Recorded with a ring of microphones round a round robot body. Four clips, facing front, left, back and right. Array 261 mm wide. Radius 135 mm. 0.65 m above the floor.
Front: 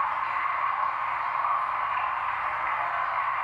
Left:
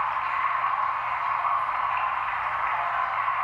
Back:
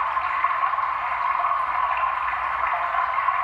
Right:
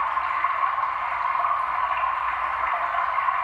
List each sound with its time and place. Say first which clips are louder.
0.0 s running water: right 2 dB, back 4 dB; 175° right, 1.1 m